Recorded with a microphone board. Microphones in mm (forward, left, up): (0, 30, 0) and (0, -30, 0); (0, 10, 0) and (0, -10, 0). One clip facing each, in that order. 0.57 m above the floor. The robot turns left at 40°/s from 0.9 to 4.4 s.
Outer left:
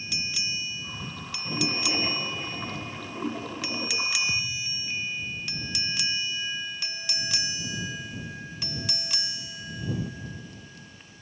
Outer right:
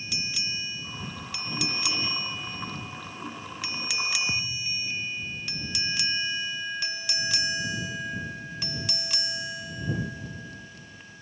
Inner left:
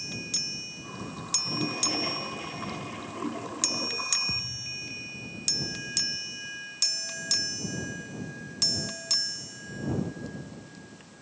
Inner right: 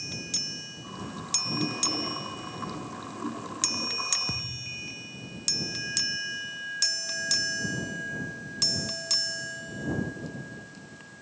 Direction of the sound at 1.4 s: 155° left.